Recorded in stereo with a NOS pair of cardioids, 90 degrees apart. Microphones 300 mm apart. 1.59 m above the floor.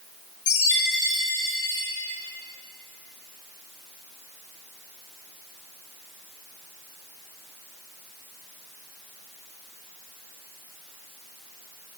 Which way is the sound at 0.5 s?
50° left.